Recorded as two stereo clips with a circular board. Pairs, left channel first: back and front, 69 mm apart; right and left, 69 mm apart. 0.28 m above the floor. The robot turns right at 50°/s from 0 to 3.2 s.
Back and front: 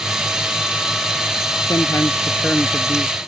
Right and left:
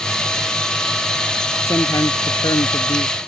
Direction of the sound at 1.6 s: 145° right.